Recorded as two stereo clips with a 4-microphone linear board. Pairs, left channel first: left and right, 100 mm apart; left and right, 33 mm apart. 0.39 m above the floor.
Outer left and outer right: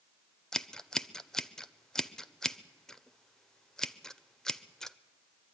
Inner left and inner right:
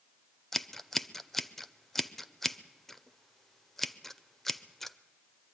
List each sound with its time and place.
0.5 s scissors: 5° left (ahead or behind), 0.5 m